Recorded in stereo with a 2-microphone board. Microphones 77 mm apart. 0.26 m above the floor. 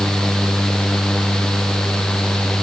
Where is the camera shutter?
I don't hear a camera shutter.